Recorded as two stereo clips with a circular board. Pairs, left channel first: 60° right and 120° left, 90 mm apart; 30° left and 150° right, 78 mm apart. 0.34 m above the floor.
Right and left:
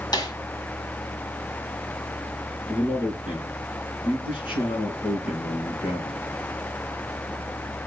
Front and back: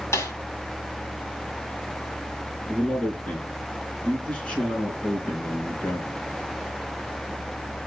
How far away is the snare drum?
About 1.9 m.